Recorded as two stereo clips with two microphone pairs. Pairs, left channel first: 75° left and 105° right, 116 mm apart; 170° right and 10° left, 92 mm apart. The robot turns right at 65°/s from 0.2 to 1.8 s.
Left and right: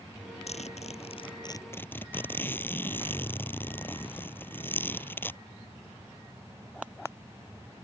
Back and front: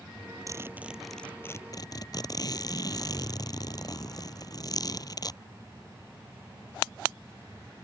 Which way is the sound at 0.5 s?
60° left.